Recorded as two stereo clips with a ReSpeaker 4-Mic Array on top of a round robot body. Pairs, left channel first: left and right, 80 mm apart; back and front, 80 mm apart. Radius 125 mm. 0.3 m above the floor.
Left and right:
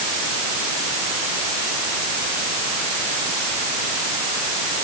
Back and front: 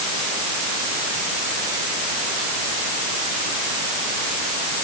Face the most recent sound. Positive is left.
No sound to turn to.